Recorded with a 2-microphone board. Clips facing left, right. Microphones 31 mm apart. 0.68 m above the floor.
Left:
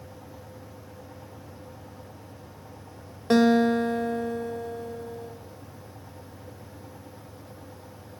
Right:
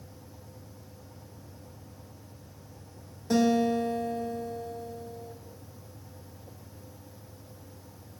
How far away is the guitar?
About 2.0 m.